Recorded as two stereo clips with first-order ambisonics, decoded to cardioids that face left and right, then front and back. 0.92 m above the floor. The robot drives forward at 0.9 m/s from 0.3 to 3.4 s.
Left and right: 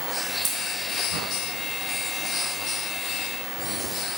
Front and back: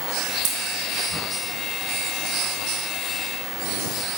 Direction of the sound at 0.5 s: 160° right.